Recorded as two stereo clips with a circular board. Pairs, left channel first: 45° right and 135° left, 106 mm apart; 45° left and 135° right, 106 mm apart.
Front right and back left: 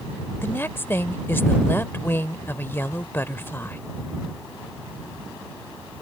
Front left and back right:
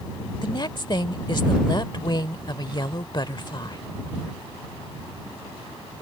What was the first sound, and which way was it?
A woman speaking, 20° left.